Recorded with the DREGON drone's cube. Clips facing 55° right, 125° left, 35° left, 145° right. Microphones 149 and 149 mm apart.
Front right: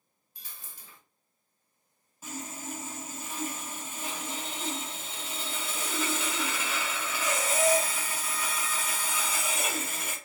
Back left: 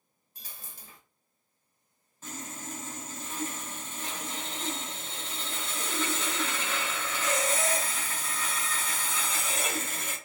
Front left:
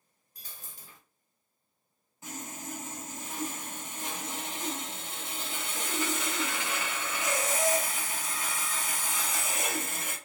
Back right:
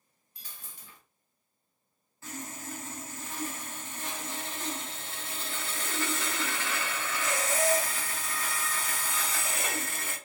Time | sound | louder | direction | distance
0.3 | a dropped coin | back left 2 dB, front left 1 dB | 80° left | 1.2 m
2.2 | sawing | front right 2 dB, even | 5° left | 1.0 m